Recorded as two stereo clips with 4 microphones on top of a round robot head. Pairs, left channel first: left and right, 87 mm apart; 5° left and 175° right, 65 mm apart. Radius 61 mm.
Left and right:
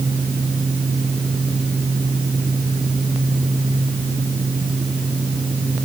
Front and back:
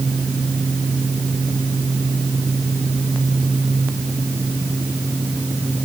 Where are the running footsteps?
I don't hear running footsteps.